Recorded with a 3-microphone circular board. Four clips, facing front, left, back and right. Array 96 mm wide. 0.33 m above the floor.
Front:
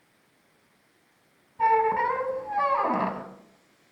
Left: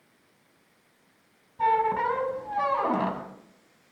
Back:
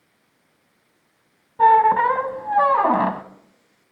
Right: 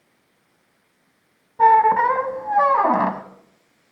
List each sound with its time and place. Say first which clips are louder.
1.6 s a squeak: right 10 dB, back 8 dB; 130° right, 1.4 m